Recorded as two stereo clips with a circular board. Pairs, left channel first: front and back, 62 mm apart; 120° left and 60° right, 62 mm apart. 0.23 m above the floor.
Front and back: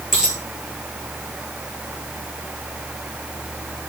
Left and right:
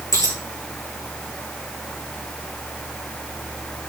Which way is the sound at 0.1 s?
100° left.